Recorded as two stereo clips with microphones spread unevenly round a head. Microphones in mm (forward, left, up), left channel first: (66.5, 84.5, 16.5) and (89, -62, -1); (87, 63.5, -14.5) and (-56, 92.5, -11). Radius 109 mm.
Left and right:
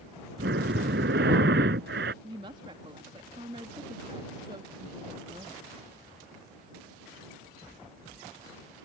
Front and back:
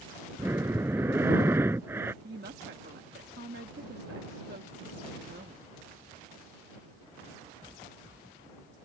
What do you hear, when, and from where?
0.4 s breathing: 115° right
2.2 s a woman speaking: 145° right